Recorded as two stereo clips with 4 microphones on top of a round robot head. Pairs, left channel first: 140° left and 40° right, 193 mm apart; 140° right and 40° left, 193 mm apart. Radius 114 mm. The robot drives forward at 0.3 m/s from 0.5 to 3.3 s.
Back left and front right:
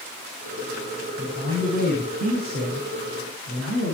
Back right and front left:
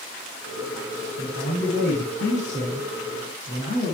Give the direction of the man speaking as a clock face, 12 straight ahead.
3 o'clock.